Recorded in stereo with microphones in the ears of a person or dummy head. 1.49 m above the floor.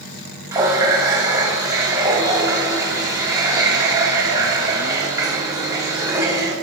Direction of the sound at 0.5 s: 25° right (ahead or behind).